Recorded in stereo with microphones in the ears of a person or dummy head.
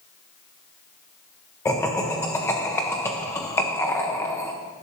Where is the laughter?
15° left (ahead or behind), 1.0 m.